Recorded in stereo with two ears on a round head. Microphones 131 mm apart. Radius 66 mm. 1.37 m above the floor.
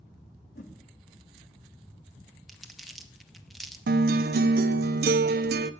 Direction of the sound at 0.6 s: 60° left (ahead or behind).